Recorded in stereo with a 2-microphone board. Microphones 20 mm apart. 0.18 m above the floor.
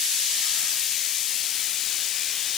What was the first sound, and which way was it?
Only background noise.